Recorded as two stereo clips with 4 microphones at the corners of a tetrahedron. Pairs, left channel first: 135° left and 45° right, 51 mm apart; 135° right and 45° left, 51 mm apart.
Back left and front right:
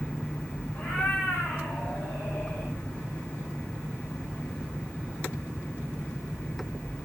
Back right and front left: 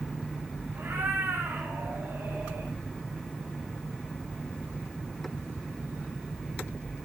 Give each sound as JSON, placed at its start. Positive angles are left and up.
{"t": 0.8, "sound": "a cat meowing", "azimuth_deg": 70, "distance_m": 7.0}